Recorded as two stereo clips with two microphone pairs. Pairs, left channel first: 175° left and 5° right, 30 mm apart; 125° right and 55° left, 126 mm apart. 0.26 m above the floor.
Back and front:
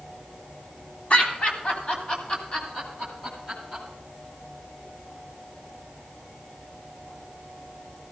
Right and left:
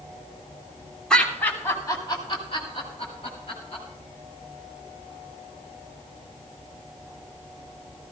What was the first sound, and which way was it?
Laughter, 155° left.